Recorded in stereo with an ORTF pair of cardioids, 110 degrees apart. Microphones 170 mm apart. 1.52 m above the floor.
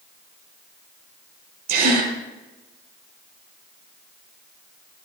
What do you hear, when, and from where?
1.7 s a gasp: 70° right, 4 m